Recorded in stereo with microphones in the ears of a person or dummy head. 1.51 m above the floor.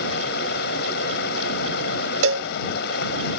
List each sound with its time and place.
0.0 s running water: 60° left (ahead or behind)
2.2 s a cowbell: 75° right (ahead or behind)